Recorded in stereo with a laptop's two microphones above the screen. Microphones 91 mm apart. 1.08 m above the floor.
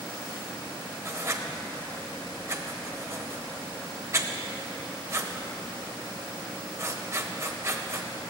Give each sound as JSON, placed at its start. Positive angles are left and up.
{"t": 1.1, "sound": "writing", "side_deg": -35, "distance_m": 0.9}